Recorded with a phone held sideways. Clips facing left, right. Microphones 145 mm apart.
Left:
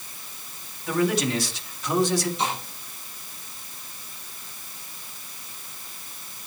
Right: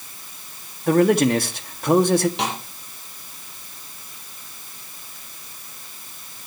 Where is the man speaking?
55° right (ahead or behind), 2 m.